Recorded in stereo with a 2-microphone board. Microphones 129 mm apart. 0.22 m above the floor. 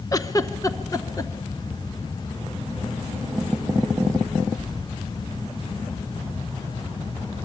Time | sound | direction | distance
0.1 | a giggle | 30° left (ahead or behind) | 0.9 m